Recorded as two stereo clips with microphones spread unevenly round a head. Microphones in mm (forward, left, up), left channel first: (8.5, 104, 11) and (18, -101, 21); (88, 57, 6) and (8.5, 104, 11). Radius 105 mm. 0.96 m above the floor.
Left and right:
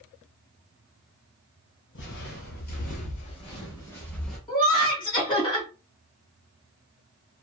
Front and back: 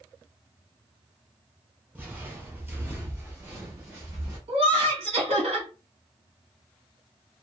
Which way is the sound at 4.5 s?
160° left.